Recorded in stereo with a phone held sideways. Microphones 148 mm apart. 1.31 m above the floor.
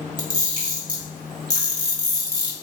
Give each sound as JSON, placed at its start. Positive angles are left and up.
{"t": 0.2, "sound": "a camera shutter", "side_deg": -30, "distance_m": 1.4}